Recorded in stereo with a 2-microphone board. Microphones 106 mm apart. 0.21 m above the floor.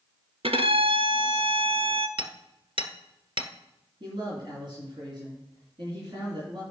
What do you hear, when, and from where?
0.4 s a violin: 60° right (ahead or behind), 0.7 m
2.2 s hammering: 55° right (ahead or behind), 1.3 m
4.0 s a man speaking: 50° right (ahead or behind), 3 m